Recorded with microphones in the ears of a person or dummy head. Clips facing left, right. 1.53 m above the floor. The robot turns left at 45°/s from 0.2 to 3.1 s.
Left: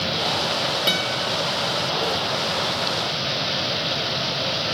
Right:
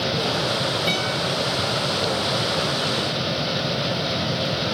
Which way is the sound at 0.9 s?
20° left (ahead or behind).